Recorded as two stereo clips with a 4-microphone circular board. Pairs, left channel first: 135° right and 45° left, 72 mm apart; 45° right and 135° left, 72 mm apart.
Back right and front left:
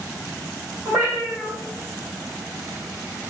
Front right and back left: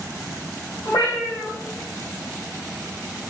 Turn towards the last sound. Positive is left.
turn(degrees=-20)